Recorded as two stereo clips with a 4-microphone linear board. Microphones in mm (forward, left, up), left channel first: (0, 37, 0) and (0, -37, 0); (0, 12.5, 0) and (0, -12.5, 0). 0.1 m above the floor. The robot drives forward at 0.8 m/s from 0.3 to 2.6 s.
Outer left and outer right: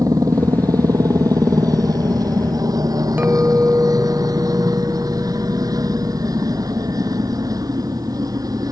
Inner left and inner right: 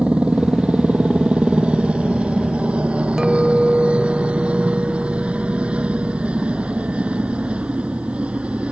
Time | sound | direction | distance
0.0 | a helicopter | 55° right (ahead or behind) | ?
3.2 | a clink | 25° right (ahead or behind) | ?